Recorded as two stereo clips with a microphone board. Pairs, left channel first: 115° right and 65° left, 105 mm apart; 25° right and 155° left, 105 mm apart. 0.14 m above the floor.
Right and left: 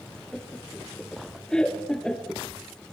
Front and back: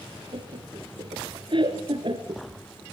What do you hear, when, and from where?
0.3 s laughter: 165° left, 2 m